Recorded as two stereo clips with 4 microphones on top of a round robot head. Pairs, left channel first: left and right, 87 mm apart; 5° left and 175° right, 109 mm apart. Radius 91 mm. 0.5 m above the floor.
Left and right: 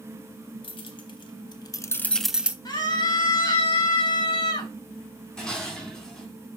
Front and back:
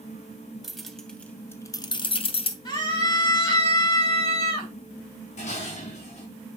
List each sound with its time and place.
0.6 s keys jangling: 95° left, 1.7 m; by 2.5 s 20° right, 1.0 m
2.6 s a scream: 50° left, 4 m
5.4 s dishes clattering: 10° left, 3.5 m